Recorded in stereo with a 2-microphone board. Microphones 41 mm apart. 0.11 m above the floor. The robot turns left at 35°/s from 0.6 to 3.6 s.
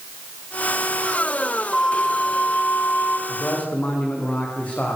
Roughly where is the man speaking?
Left.